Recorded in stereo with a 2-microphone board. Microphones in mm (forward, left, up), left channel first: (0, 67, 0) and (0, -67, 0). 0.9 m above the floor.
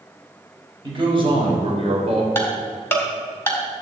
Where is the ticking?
15° left (ahead or behind), 2 m.